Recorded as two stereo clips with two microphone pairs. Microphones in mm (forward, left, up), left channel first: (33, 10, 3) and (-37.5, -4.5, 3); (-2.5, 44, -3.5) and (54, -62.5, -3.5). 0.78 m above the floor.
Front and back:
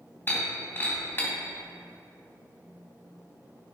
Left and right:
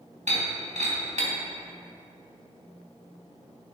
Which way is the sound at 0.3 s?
50° right.